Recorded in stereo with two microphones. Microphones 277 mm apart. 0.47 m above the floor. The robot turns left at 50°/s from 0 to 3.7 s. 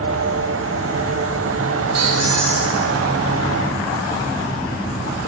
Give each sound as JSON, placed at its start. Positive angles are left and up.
{"t": 1.9, "sound": "a squeak", "azimuth_deg": -75, "distance_m": 1.1}